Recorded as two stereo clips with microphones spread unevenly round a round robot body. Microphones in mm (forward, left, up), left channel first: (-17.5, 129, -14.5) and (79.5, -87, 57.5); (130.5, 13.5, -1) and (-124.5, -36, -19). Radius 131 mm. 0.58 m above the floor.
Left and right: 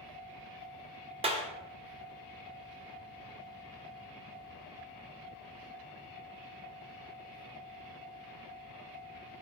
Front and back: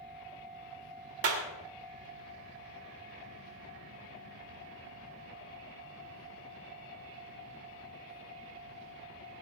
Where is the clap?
140° right, 2.0 m.